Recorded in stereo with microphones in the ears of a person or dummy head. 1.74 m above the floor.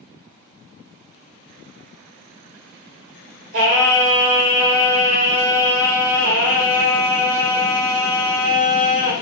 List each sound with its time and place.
3.5 s singing: 60° right (ahead or behind), 1.6 m